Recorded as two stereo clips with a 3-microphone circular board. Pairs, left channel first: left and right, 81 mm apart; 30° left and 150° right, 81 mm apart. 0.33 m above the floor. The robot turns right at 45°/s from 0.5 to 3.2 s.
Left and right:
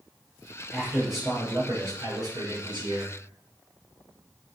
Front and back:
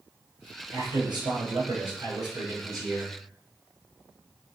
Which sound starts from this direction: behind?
A man speaking, at 0.7 s.